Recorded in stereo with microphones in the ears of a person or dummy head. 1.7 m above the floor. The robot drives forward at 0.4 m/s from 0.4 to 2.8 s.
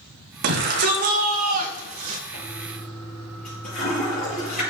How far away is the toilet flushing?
About 6.5 m.